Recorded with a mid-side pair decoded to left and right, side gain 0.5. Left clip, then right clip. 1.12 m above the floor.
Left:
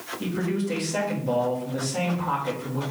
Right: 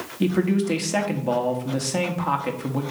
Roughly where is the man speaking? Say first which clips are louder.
Right 7 dB; ahead right.